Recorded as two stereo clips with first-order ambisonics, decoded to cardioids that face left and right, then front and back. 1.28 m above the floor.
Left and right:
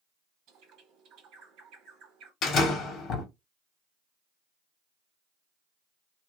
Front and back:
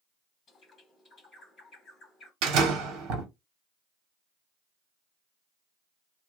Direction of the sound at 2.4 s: 145° left.